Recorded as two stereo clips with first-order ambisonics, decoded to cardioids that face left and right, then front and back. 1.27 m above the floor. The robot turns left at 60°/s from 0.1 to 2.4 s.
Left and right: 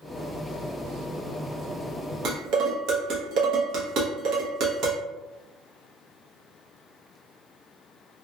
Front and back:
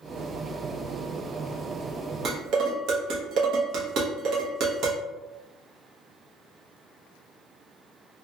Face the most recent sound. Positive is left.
turn(degrees=-135)